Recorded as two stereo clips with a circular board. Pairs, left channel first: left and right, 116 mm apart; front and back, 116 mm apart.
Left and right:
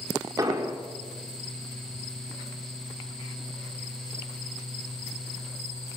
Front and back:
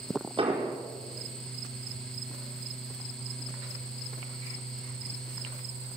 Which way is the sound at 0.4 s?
145° right.